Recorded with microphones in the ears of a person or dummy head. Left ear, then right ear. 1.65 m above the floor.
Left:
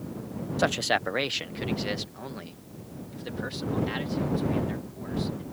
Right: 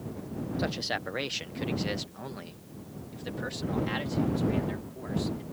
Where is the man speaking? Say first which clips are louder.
Left 8 dB; 45° left (ahead or behind); by 5.4 s 15° right (ahead or behind).